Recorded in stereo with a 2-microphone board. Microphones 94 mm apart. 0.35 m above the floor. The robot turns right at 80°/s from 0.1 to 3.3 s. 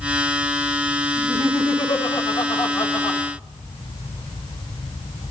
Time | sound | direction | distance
1.2 | laughter | straight ahead | 3.5 m